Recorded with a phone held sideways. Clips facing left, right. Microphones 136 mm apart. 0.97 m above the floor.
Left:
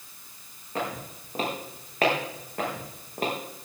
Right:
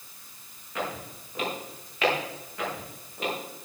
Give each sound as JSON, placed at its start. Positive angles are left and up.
{"t": 0.8, "sound": "footsteps", "side_deg": 45, "distance_m": 6.0}